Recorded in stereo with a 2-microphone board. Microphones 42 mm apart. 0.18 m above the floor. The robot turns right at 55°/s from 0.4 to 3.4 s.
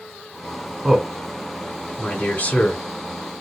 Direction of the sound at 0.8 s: 15° right (ahead or behind).